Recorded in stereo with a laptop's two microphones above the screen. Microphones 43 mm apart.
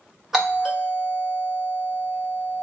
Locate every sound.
0.3 s a doorbell: 10° right (ahead or behind), 1.6 m